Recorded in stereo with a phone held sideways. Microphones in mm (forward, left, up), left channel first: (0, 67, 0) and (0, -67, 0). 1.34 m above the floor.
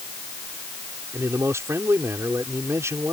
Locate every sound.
1.1 s a man speaking: 20° right (ahead or behind)